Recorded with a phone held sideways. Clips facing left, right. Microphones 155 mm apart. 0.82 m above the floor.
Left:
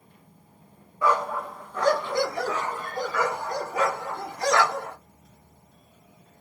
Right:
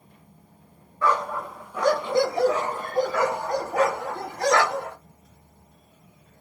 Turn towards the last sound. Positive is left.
turn(degrees=-75)  # may be behind; listen again after turning